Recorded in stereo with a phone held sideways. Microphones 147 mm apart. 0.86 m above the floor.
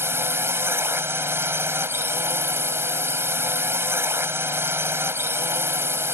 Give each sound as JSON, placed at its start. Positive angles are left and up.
{"t": 0.0, "sound": "a drone", "side_deg": -15}